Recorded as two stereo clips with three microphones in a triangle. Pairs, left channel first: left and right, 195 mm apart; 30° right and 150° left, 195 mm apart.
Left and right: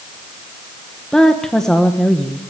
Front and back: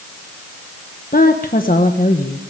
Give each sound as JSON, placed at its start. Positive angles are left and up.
{"t": 1.1, "sound": "a woman speaking", "azimuth_deg": 5, "distance_m": 1.3}